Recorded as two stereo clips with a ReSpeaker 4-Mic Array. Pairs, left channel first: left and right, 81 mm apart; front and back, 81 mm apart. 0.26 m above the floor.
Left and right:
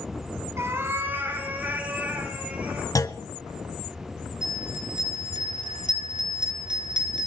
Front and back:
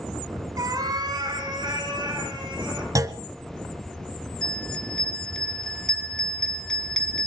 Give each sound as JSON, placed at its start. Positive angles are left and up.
{"t": 0.6, "sound": "a cat meowing", "azimuth_deg": -145, "distance_m": 1.3}
{"t": 3.0, "sound": "a clunk", "azimuth_deg": 135, "distance_m": 0.5}
{"t": 4.4, "sound": "a bell", "azimuth_deg": -80, "distance_m": 2.0}